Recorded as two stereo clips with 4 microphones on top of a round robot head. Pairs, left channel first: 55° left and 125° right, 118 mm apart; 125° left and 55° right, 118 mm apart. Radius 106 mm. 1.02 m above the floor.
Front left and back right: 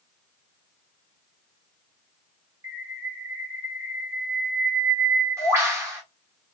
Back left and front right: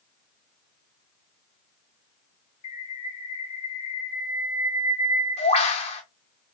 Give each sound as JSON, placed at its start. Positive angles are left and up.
{"t": 2.6, "sound": "a bird", "azimuth_deg": 165, "distance_m": 1.3}